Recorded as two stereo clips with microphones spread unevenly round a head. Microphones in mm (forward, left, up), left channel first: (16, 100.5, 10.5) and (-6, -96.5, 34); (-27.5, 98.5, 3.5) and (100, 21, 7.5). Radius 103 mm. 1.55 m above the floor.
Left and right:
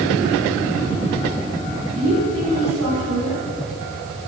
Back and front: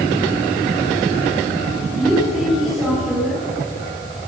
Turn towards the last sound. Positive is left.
turn(degrees=-120)